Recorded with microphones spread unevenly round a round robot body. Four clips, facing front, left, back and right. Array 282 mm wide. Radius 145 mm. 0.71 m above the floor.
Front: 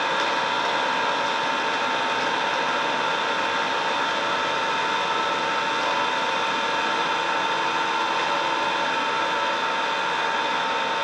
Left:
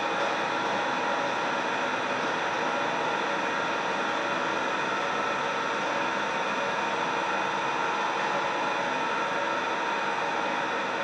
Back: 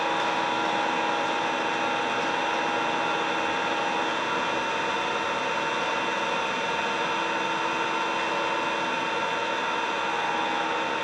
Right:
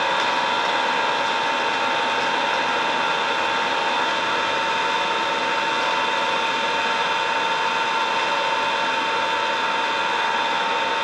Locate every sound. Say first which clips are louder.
0.0 s an engine running: right 6 dB, front 2 dB; 70° right, 1.6 m